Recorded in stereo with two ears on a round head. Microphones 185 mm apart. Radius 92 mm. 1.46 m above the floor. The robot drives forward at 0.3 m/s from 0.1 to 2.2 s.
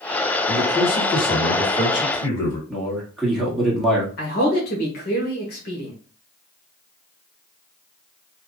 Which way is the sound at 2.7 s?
Centre (ahead or behind).